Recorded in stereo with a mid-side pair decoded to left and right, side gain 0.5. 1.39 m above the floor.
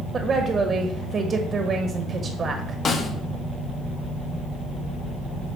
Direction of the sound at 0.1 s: 40° right.